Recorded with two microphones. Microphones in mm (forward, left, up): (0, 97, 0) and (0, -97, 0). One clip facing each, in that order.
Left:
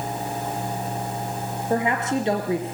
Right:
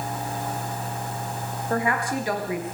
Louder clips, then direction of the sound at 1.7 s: Left 3 dB; 20° left (ahead or behind).